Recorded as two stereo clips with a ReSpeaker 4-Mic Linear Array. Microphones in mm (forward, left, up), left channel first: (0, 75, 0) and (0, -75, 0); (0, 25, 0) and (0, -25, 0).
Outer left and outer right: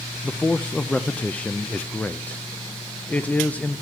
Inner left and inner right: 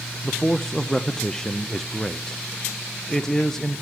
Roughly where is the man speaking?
Centre.